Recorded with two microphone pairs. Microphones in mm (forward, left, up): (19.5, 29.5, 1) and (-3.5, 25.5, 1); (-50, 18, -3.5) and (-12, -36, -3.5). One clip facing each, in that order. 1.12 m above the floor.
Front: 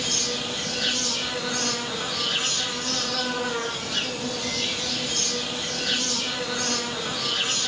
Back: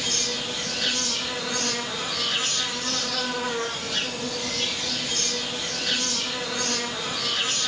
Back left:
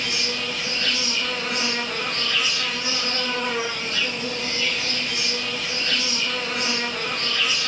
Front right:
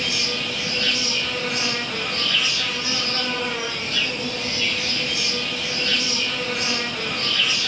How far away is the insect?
About 1.3 m.